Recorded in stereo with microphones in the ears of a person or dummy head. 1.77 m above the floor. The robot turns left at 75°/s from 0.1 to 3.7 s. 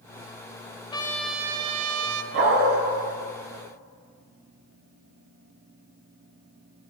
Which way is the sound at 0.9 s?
30° left.